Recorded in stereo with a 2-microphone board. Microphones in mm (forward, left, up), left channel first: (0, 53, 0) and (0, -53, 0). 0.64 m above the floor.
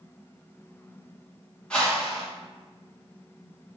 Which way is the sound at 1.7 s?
10° left (ahead or behind).